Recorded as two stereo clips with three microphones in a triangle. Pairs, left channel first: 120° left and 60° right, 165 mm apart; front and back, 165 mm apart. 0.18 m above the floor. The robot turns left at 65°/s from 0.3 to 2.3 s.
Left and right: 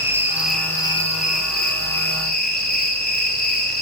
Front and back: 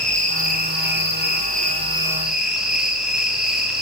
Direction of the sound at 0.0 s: 135° right.